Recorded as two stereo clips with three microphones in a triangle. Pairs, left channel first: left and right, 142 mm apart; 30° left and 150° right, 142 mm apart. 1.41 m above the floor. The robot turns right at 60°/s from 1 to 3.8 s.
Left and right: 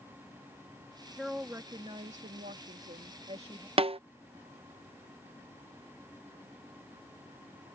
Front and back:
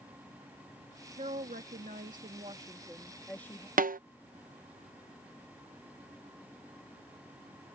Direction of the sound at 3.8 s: 140° right.